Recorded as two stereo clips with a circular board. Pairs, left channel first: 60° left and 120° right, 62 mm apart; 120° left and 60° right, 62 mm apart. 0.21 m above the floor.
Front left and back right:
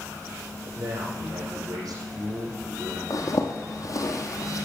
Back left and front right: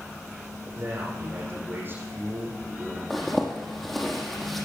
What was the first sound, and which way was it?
A man speaking, 115° right.